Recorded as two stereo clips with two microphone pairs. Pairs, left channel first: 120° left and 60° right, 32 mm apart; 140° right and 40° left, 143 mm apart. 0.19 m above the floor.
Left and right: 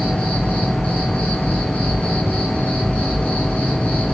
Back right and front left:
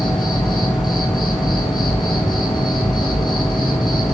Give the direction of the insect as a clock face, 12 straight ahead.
7 o'clock.